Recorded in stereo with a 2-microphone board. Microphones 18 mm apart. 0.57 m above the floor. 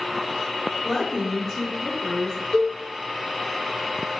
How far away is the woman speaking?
About 1.5 m.